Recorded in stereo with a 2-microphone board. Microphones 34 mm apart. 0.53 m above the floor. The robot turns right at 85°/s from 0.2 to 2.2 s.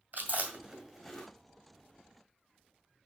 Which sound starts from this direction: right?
Chewing, at 0.1 s.